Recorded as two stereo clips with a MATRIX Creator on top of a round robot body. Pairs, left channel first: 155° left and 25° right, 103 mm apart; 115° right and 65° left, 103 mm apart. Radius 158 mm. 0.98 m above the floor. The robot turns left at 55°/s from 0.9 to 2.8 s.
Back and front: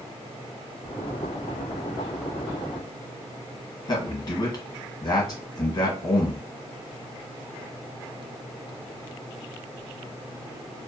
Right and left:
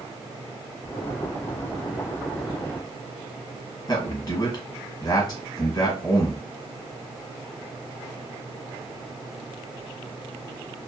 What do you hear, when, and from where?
3.9 s a man speaking: 160° right, 1.3 m